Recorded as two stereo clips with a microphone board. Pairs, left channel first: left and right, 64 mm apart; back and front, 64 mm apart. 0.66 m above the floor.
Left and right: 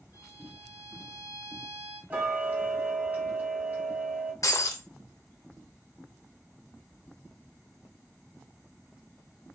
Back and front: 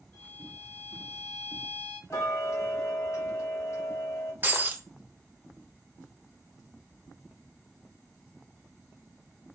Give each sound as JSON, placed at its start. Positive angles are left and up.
{"t": 0.1, "sound": "a violin", "azimuth_deg": -140, "distance_m": 1.5}
{"t": 2.1, "sound": "ticking", "azimuth_deg": -150, "distance_m": 1.0}
{"t": 4.4, "sound": "breaking glass", "azimuth_deg": 60, "distance_m": 0.6}